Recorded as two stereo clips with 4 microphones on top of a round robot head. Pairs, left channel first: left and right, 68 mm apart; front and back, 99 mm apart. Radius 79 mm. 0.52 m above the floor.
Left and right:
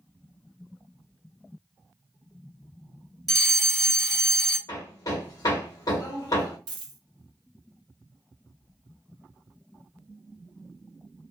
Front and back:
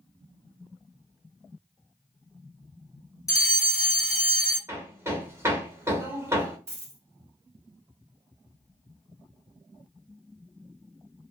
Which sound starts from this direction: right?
A dropped coin, at 6.7 s.